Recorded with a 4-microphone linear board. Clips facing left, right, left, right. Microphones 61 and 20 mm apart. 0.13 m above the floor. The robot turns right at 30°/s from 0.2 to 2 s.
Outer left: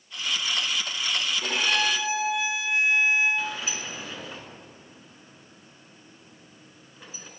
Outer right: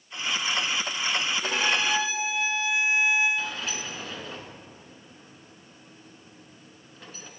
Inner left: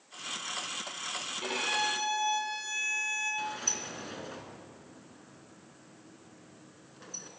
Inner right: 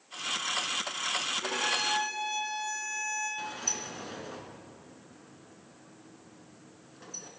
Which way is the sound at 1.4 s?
70° left (ahead or behind).